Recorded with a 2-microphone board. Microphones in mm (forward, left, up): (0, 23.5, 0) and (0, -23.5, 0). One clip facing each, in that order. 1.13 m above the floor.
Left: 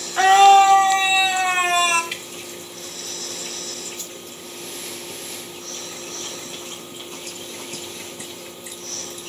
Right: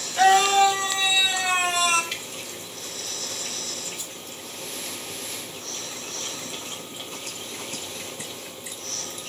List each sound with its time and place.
0.2 s a scream: 40° left (ahead or behind), 2.5 m; by 2.0 s 30° left (ahead or behind), 3.5 m
2.1 s dripping: 10° left (ahead or behind), 2.5 m
4.0 s a whoosh: 15° right (ahead or behind), 0.8 m